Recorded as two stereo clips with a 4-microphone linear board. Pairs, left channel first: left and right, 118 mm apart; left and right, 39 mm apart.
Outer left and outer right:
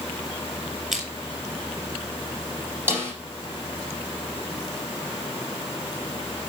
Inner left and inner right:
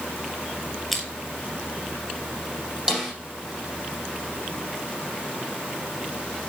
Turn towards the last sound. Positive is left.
turn(degrees=-20)  # may be behind; listen again after turning